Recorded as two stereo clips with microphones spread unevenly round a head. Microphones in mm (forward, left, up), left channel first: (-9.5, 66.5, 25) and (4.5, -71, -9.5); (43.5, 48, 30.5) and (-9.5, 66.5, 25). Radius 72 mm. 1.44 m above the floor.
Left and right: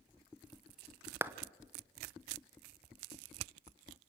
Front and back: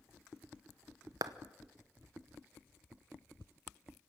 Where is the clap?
160° right, 0.9 m.